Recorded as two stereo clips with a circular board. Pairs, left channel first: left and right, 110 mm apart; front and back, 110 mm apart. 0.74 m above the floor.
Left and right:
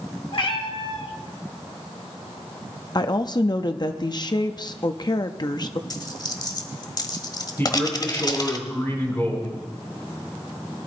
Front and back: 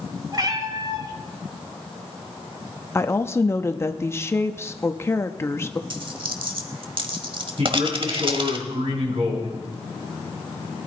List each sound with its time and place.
0.3 s a cat meowing: 125° left, 1.6 m
3.0 s a woman speaking: 60° left, 0.7 m
5.9 s a dropped coin: 140° left, 1.2 m
7.6 s a man speaking: 160° left, 6.5 m